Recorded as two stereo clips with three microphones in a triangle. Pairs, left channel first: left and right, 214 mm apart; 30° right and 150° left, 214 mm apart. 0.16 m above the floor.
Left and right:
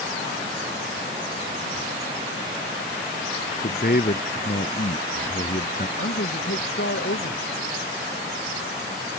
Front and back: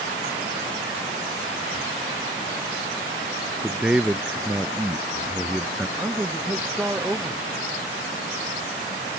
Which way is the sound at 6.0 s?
70° left.